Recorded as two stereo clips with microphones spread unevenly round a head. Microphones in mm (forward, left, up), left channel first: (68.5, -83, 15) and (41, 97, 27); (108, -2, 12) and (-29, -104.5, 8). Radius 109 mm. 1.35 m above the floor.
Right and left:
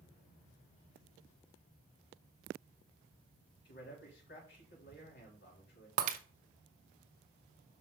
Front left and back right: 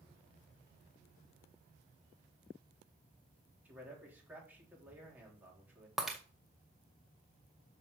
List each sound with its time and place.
3.6 s a man speaking: 65° right, 3.5 m
6.0 s breaking glass: 125° left, 0.5 m